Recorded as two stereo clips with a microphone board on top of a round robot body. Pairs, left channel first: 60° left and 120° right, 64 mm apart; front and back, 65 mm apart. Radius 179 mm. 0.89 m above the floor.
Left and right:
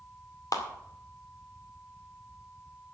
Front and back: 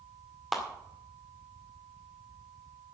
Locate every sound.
0.5 s a clap: 90° left, 2 m